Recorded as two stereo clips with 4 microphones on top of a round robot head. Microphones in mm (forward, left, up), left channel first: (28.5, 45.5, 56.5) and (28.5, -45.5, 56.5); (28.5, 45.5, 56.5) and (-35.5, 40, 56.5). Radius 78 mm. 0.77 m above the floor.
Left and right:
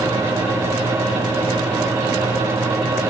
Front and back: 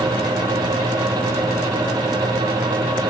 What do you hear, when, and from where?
Only background noise.